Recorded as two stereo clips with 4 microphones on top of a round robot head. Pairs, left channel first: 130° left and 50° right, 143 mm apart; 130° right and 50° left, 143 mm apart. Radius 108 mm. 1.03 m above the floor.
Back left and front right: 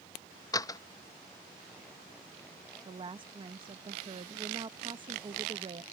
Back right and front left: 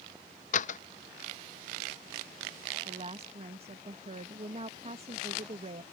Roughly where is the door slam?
Behind.